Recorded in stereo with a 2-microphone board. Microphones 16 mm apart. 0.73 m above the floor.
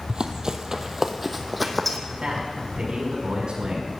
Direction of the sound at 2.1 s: 65° right (ahead or behind).